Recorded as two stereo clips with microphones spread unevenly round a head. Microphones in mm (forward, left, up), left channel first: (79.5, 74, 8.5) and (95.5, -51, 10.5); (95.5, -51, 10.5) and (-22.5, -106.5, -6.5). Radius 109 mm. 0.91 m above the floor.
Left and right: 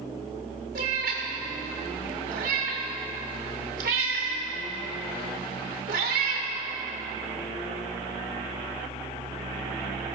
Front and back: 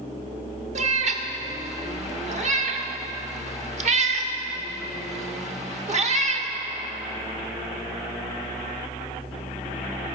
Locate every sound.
0.8 s a cat meowing: 120° right, 0.9 m